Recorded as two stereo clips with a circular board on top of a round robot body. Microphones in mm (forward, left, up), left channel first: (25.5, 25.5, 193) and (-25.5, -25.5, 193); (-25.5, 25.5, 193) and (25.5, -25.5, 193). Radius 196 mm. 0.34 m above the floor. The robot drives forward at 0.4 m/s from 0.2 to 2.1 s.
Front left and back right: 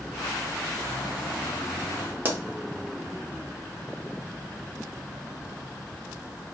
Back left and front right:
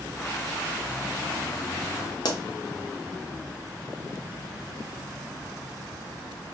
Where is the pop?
160° left, 0.9 m.